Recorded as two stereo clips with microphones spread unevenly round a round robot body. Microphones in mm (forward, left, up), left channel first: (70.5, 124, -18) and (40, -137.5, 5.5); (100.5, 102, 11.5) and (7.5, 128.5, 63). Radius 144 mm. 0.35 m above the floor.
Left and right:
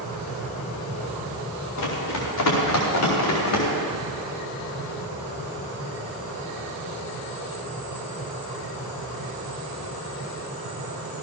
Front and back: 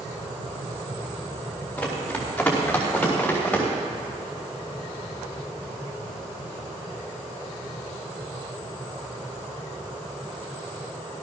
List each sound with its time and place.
1.8 s running footsteps: 60° left, 5.5 m